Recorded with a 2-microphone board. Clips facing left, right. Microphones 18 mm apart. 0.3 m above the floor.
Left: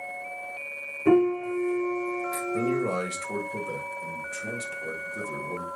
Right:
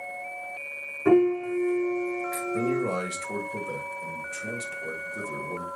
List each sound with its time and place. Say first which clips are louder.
1.1 s a piano: right 1 dB; 70° right (ahead or behind), 4 m
2.5 s a man speaking: even; 15° left (ahead or behind), 1.0 m